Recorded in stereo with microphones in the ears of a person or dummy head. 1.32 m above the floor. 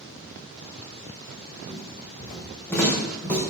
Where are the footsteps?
15° left (ahead or behind), 5 m; by 3.4 s 5° left (ahead or behind), 4 m.